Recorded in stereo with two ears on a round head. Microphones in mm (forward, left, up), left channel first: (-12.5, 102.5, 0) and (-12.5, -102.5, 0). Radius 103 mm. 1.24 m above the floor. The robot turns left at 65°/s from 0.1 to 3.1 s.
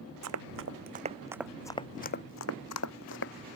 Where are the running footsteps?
80° right; by 3.3 s 55° left (ahead or behind).